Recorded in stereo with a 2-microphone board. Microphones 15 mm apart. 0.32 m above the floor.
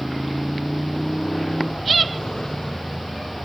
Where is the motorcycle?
90° left.